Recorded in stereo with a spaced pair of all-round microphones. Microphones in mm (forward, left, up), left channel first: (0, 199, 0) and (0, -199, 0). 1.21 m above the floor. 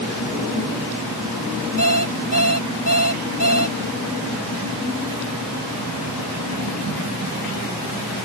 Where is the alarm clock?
50° left (ahead or behind).